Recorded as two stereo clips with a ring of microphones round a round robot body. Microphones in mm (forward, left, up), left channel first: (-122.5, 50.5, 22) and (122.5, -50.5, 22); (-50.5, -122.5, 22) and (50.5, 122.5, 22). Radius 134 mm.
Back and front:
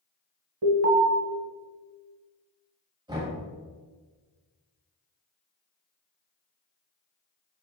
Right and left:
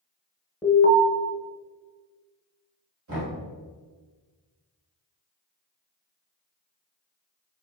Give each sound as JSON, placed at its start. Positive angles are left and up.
{"t": 0.6, "sound": "an alarm", "azimuth_deg": -45, "distance_m": 1.0}
{"t": 3.1, "sound": "knocking", "azimuth_deg": 50, "distance_m": 1.8}